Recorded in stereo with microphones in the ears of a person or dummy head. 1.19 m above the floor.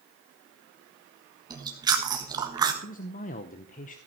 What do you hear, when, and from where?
1.5 s chewing: 20° right (ahead or behind), 1.5 m
2.8 s a man speaking: 40° left (ahead or behind), 0.7 m